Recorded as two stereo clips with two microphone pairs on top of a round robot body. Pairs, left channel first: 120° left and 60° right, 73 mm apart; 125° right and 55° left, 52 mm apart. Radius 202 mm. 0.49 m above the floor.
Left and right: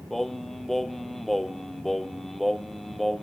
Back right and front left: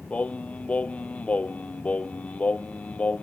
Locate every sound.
0.1 s singing: 155° right, 0.9 m